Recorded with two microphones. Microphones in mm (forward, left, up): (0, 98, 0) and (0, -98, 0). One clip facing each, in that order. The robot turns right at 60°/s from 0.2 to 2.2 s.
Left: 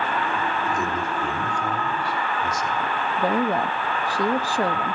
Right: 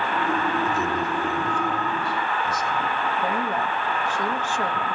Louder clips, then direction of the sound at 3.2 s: Left 7 dB; 35° left (ahead or behind).